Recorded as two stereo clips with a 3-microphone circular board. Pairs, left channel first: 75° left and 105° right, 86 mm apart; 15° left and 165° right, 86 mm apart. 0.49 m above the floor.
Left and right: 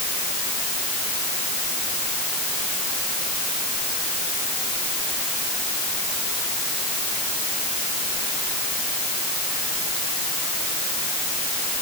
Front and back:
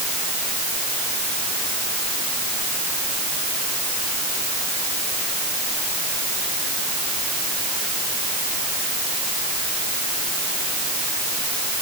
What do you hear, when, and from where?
Only background noise.